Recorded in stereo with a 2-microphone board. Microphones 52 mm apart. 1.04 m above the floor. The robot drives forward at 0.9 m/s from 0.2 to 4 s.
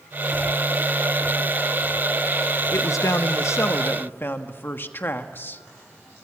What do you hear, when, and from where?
2.7 s a man speaking: 70° left (ahead or behind), 0.9 m; by 5.6 s 45° left (ahead or behind), 1.2 m